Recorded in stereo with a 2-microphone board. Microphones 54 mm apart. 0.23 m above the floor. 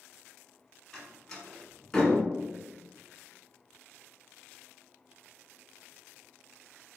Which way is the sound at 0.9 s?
10° left (ahead or behind).